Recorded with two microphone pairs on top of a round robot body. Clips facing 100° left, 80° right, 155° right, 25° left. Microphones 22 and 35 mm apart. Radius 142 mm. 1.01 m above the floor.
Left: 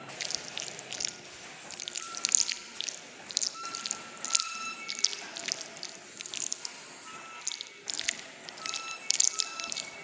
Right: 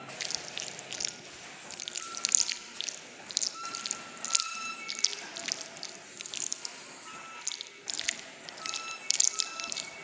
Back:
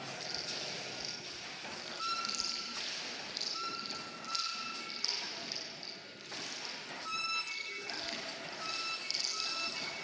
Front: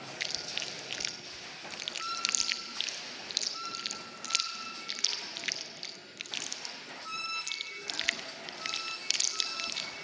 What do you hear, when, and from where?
0.2 s chewing: 10° left, 0.5 m